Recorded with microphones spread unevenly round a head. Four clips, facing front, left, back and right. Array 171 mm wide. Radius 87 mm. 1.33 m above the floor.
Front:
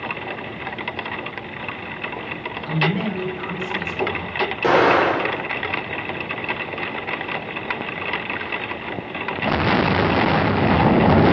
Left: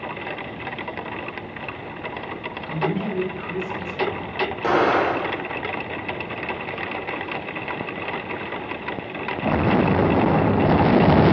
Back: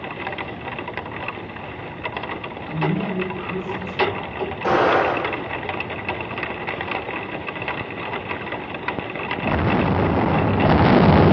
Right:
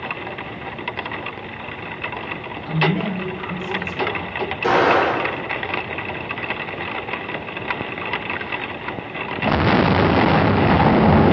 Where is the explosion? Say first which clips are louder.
Right 3 dB, front 2 dB; 5° left, 4.5 m.